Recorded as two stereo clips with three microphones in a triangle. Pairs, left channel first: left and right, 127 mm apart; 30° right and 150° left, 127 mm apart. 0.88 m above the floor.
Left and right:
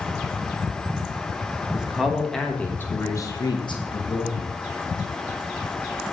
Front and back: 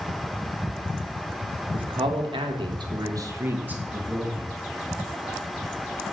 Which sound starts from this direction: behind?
A man speaking, at 1.7 s.